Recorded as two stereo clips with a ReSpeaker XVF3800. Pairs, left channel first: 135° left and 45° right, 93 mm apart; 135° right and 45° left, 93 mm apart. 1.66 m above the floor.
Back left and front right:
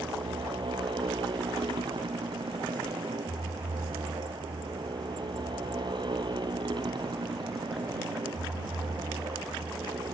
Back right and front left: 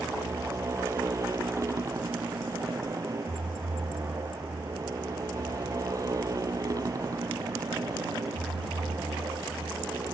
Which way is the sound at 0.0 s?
10° right.